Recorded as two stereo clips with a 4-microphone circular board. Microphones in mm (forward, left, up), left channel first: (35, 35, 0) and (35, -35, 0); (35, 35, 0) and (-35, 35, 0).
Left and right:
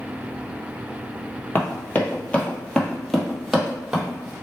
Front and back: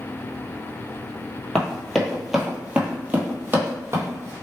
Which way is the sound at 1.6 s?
75° left.